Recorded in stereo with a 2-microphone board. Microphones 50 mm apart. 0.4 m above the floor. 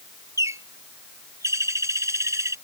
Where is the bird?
80° right.